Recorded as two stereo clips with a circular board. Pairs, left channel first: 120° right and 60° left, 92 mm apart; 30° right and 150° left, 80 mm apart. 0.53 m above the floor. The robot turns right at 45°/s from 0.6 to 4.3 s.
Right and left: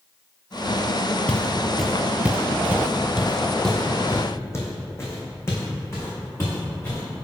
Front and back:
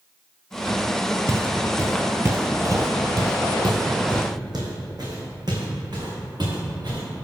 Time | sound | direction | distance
1.3 | footsteps | 170° left | 0.6 m